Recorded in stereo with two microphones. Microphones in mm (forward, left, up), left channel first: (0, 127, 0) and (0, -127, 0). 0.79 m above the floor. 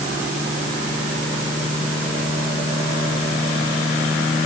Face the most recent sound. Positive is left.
No sound to turn to.